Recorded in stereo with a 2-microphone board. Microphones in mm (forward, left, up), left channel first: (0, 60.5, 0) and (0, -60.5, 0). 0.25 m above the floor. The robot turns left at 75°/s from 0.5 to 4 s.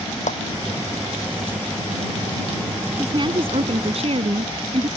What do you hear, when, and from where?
0.3 s a clap: 80° left
3.0 s a woman speaking: 30° right; by 4.9 s 105° right